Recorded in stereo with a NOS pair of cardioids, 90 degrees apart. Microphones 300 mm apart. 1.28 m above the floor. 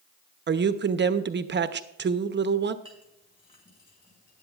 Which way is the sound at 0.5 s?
35° right.